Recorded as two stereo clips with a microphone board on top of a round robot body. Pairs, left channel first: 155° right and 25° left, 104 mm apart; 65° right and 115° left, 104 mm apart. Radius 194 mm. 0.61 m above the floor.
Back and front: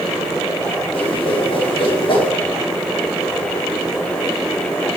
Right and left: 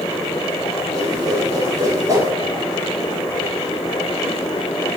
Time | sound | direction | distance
0.9 | a whoosh | 170° left | 4 m